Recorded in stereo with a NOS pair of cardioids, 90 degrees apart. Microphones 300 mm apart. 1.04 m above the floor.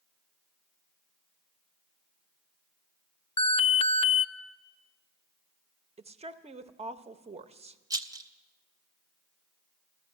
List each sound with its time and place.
3.4 s an alarm: 20° left, 0.7 m
6.0 s a woman speaking: 20° right, 1.0 m
7.9 s a rattle: 10° right, 0.9 m